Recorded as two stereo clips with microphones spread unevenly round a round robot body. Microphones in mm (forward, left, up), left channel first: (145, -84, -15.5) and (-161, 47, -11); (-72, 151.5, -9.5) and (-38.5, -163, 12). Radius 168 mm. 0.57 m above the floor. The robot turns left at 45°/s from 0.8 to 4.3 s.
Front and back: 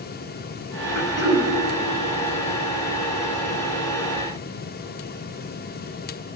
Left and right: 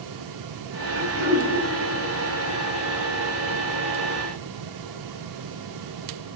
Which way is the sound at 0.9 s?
60° right.